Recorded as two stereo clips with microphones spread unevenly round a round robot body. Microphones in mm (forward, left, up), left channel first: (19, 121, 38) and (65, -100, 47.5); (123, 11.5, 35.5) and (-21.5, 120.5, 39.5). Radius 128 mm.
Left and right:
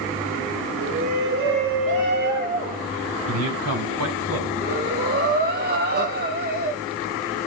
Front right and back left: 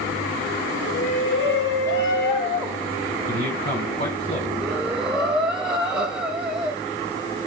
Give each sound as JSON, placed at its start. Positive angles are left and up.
{"t": 0.8, "sound": "a shout", "azimuth_deg": -50, "distance_m": 3.0}
{"t": 3.3, "sound": "a man speaking", "azimuth_deg": -105, "distance_m": 4.0}
{"t": 4.6, "sound": "breathing", "azimuth_deg": -130, "distance_m": 2.0}